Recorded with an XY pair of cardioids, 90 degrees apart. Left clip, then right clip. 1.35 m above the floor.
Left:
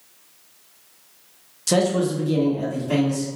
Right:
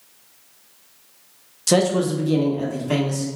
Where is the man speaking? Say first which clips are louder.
Right 2 dB; 20° right, 0.7 m; by 3.3 s 35° right, 1.5 m.